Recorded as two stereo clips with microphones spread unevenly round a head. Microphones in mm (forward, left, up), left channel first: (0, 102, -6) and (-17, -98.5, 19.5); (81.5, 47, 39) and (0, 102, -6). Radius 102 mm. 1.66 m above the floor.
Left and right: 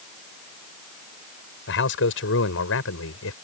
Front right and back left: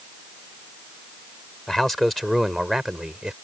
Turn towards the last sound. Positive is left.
turn(degrees=60)